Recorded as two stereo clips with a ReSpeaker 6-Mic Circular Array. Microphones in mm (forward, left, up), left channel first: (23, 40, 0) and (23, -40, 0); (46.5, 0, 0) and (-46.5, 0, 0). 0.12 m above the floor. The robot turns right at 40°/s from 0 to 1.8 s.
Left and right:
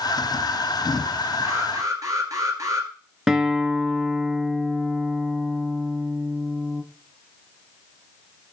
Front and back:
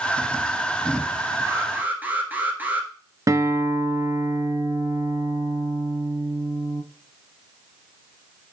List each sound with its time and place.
1.4 s an alarm: 130° right, 1.8 m; by 2.9 s 115° right, 1.8 m
3.3 s a guitar: 170° right, 0.6 m